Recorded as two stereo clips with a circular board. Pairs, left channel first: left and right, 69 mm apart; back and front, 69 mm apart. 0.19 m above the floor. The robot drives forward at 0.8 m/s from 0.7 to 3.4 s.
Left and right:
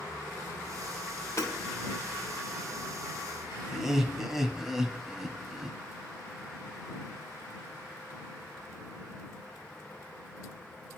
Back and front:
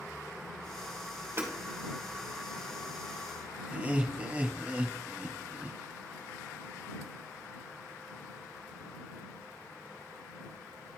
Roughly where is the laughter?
Ahead.